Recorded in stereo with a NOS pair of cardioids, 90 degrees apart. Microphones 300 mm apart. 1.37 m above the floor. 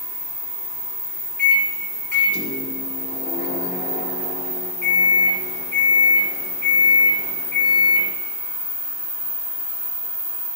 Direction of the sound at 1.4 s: 35° left.